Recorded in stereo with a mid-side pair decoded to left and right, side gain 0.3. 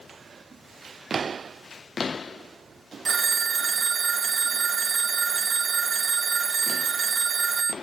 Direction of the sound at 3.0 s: 55° right.